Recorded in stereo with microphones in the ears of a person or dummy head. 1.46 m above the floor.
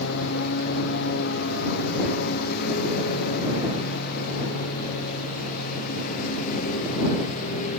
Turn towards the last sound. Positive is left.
turn(degrees=45)  # may be behind; listen again after turning